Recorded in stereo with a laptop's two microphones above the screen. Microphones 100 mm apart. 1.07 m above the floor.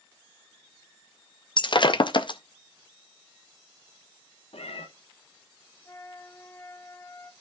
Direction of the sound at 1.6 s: 50° left (ahead or behind).